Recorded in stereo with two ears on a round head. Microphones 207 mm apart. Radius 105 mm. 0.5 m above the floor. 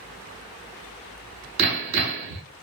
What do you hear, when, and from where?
1.6 s hammering: 60° right (ahead or behind), 2.5 m